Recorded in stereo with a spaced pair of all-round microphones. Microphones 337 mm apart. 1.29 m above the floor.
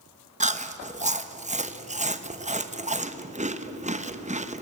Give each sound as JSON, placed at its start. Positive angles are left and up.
{"t": 0.4, "sound": "chewing", "side_deg": -20, "distance_m": 1.0}